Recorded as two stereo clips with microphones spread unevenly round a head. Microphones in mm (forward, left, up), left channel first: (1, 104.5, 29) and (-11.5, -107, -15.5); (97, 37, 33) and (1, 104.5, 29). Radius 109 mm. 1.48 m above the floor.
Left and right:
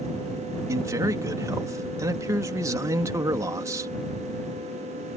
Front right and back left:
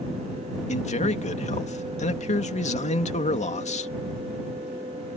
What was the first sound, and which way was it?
A man speaking, 15° right.